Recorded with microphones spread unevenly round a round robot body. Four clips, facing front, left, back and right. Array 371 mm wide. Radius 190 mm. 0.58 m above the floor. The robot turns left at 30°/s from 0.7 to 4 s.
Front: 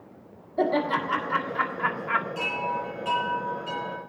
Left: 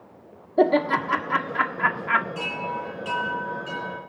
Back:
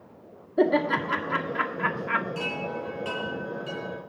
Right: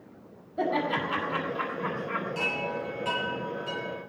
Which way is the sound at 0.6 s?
140° left.